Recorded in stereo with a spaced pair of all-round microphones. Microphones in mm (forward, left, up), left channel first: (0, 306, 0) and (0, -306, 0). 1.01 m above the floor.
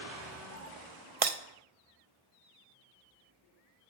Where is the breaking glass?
60° right (ahead or behind), 0.9 m.